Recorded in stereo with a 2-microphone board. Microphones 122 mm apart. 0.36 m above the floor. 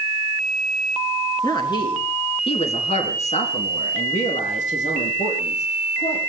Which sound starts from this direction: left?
A woman speaking, at 1.4 s.